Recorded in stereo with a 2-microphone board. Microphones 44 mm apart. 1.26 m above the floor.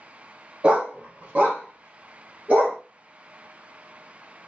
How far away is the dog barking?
About 0.7 m.